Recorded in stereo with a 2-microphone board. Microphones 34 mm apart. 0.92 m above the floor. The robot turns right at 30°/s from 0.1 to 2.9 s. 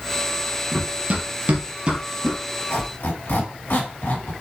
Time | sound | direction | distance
0.7 | running footsteps | 35° right (ahead or behind) | 1.3 m
2.7 | a squeak | 80° left | 2.5 m